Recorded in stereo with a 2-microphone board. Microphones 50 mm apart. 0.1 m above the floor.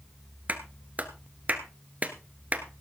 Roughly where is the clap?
Right.